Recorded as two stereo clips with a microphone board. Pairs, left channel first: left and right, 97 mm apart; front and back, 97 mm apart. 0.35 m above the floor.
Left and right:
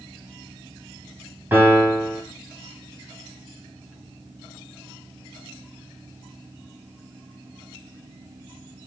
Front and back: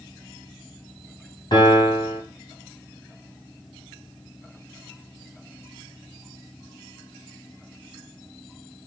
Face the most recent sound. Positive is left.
turn(degrees=-25)